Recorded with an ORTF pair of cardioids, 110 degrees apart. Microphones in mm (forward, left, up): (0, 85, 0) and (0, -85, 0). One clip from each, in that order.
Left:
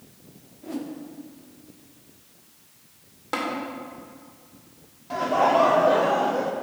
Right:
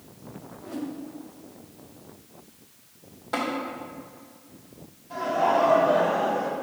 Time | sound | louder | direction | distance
0.6 | a whoosh | left 1 dB | 15° left | 0.7 m
3.3 | tapping | even | 30° left | 2 m
5.1 | laughter | left 3 dB | 60° left | 1.2 m